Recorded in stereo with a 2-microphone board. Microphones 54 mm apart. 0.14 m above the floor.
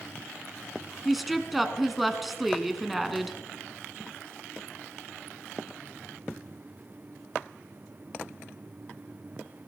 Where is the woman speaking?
Centre (ahead or behind), 1.1 m.